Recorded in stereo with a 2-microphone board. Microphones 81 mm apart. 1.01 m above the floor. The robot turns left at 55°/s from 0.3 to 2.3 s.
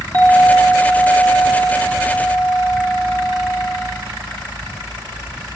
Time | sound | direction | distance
0.1 | a clink | 160° left | 1.0 m